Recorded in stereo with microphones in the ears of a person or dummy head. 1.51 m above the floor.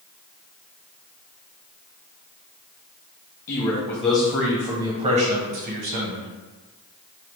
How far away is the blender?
I don't hear a blender.